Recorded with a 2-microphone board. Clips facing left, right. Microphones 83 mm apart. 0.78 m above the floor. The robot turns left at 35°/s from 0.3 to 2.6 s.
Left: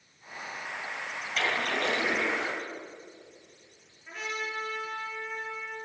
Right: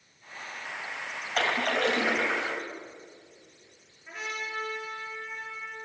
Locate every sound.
1.4 s a splash: 50° right, 2.5 m; by 2.6 s 95° right, 2.5 m
4.1 s a trumpet: centre (ahead or behind), 5.5 m